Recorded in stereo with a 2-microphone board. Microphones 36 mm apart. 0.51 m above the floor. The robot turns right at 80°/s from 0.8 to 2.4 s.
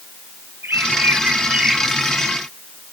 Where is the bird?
90° right; by 2.4 s 30° left.